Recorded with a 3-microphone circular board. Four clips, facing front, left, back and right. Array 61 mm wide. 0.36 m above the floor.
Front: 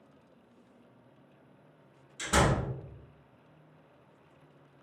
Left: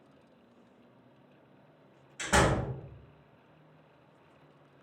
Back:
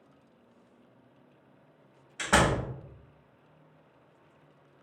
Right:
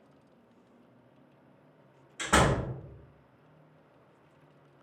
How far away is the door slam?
About 1.3 m.